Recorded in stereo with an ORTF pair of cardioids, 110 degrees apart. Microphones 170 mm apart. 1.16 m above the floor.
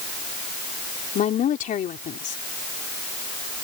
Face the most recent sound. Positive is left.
turn(degrees=50)